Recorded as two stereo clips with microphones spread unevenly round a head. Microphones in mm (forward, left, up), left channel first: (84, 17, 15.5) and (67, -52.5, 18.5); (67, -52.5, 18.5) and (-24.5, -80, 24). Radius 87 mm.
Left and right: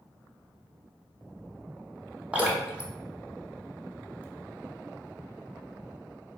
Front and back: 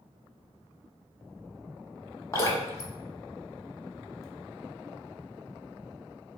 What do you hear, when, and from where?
2.3 s dripping: 35° right, 1.5 m